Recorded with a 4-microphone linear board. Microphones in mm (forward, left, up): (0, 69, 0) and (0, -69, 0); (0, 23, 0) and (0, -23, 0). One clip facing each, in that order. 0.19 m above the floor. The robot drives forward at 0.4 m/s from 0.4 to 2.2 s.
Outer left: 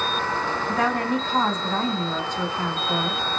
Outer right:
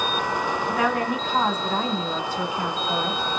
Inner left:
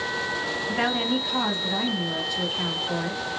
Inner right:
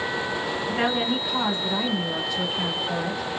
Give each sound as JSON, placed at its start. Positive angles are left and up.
{"t": 0.7, "sound": "a woman speaking", "side_deg": -10, "distance_m": 1.0}